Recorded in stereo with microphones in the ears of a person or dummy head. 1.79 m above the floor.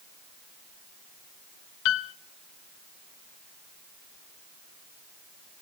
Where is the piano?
75° left (ahead or behind), 0.5 m.